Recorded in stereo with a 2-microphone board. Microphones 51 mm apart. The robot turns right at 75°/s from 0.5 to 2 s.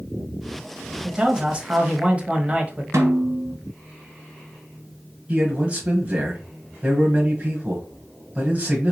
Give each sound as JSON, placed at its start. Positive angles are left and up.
{"t": 1.0, "sound": "a man speaking", "side_deg": -10, "distance_m": 1.0}
{"t": 2.9, "sound": "a snare drum", "side_deg": -75, "distance_m": 1.6}
{"t": 5.3, "sound": "a man speaking", "side_deg": -25, "distance_m": 1.3}